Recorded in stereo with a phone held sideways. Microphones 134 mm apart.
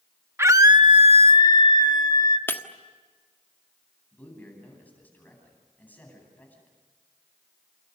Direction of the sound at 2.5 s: 15° left (ahead or behind).